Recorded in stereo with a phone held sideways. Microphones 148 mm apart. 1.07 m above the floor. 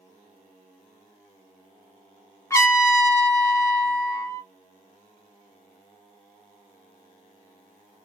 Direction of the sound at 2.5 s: 20° left (ahead or behind).